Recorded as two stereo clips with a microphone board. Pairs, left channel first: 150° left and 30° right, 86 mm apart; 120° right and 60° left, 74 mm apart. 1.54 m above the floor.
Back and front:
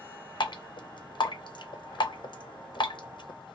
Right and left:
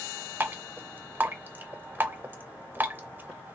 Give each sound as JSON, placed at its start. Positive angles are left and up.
{"t": 0.4, "sound": "dripping", "azimuth_deg": 125, "distance_m": 0.6}